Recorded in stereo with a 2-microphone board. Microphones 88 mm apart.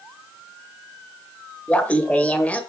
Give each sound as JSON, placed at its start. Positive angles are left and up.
{"t": 1.7, "sound": "laughter", "side_deg": 15, "distance_m": 1.2}